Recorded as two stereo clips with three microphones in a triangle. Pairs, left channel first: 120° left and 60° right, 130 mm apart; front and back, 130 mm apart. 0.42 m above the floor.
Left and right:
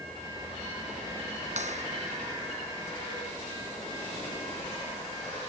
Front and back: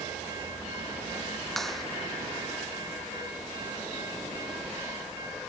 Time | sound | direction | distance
1.6 | a clap | 85° right | ?